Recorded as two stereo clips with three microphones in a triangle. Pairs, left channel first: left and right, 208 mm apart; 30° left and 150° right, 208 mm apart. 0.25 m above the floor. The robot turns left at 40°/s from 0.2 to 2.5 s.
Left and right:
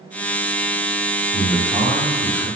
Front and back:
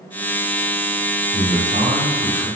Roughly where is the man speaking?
Behind right.